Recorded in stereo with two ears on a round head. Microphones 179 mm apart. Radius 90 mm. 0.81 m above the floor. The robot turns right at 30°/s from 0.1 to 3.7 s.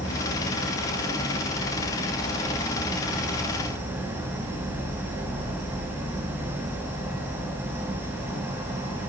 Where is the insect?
90° left, 3 m; by 9.1 s 165° right, 3 m.